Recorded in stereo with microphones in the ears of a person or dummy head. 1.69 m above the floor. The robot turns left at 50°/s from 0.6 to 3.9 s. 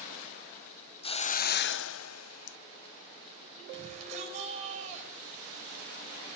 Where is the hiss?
150° left, 0.5 m; by 2.6 s 70° left, 0.5 m.